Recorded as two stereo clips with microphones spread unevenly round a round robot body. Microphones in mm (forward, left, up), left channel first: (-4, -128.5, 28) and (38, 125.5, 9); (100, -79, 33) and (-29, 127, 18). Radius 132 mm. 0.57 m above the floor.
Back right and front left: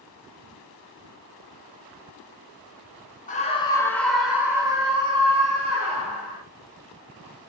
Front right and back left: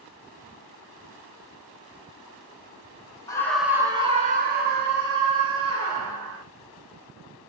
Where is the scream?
125° right, 0.8 m; by 6.4 s 145° left, 2 m.